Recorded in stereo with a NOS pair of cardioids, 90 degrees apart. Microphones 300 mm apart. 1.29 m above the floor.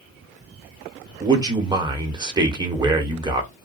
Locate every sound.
1.2 s a man speaking: 15° right, 1.2 m